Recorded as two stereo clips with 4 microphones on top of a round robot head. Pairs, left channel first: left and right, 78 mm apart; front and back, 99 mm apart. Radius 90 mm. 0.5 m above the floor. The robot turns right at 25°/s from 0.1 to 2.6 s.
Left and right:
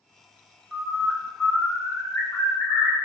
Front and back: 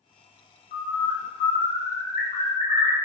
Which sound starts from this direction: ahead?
A bird, at 0.7 s.